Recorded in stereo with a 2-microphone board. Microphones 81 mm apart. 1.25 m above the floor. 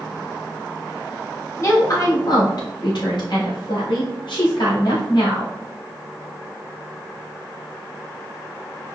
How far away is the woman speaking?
About 1.8 m.